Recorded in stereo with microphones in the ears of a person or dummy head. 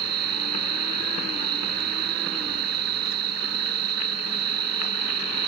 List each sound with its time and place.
0.0 s an insect: 65° right (ahead or behind), 0.8 m